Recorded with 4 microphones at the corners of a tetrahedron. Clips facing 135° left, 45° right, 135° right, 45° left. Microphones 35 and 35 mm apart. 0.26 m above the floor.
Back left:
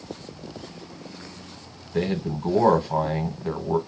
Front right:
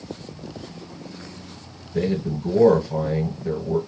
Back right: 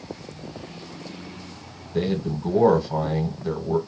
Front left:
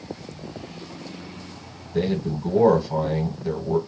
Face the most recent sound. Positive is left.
turn(degrees=145)